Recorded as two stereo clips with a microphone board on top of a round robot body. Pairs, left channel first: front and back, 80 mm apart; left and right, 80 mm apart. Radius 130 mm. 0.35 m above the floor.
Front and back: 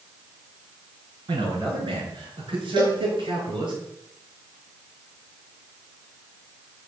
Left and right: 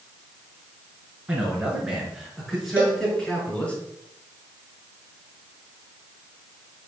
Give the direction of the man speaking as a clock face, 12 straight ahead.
6 o'clock.